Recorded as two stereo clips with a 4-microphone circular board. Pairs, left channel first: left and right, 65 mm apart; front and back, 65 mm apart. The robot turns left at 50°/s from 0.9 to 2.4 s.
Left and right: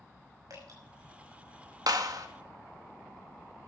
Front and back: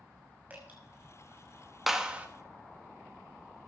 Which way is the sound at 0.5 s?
115° right.